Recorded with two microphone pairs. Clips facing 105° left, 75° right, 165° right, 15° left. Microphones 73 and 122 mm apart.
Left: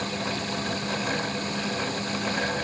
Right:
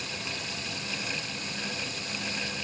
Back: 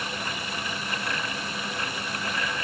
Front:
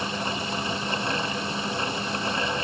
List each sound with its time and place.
Only background noise.